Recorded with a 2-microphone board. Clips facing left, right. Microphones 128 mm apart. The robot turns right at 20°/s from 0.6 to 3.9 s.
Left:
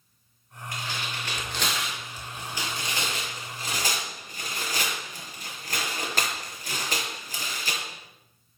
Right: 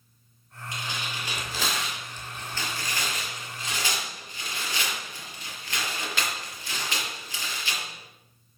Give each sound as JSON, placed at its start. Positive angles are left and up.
{"t": 0.7, "sound": "tearing paper", "side_deg": -20, "distance_m": 6.0}